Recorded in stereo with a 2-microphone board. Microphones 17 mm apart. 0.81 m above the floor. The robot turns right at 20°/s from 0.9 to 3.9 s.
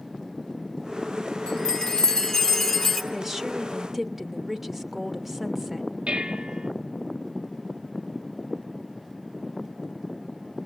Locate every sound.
1.5 s a chime: 130° left, 3 m; by 3.0 s 165° left, 3 m
3.1 s a woman speaking: 25° right (ahead or behind), 1.2 m; by 5.9 s 15° right (ahead or behind), 1.2 m
6.1 s dishes clattering: 80° right, 1.4 m